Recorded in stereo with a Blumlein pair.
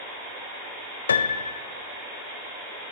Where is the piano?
70° left, 0.6 m.